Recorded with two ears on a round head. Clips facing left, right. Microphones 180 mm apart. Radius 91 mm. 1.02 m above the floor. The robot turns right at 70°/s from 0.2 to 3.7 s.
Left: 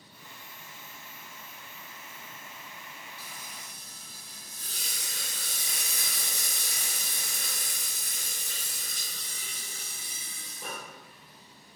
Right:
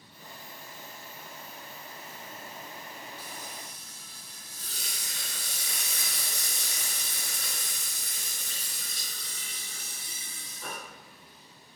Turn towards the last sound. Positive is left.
turn(degrees=160)